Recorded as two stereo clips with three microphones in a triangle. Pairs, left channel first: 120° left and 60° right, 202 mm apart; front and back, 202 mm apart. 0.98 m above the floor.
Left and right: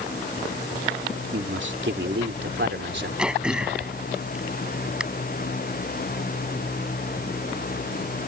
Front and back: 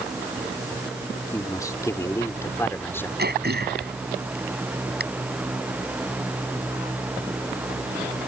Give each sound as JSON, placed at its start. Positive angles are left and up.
{"t": 1.3, "sound": "a man speaking", "azimuth_deg": -70}
{"t": 3.2, "sound": "throat clearing", "azimuth_deg": -145}